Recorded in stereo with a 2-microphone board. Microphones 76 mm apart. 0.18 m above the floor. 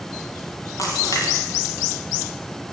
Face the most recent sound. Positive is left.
turn(degrees=50)  # may be behind; listen again after turning